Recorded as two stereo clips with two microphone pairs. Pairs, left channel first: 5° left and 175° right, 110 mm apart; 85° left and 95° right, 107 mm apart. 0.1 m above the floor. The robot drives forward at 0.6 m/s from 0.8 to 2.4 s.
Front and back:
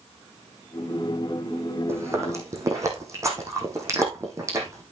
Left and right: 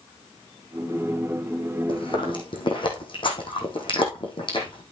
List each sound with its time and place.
1.9 s chewing: 120° left, 3 m; by 4.8 s 125° left, 3.5 m